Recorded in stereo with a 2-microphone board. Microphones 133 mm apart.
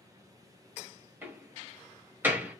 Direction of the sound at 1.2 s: 15° right (ahead or behind).